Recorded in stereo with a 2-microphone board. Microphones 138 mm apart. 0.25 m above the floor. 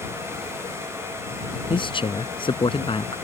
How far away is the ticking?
No ticking in this recording.